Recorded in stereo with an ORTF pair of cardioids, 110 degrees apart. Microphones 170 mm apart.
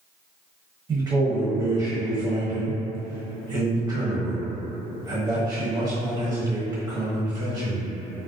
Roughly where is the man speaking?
Ahead right.